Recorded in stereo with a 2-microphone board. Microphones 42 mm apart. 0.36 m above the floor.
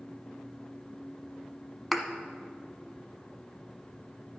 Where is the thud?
Centre (ahead or behind), 0.9 m.